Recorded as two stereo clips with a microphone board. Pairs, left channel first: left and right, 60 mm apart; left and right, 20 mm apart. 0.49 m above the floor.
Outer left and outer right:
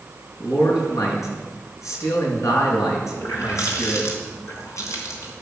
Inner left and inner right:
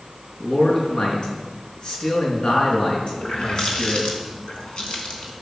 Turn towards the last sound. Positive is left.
turn(degrees=65)  # may be behind; listen again after turning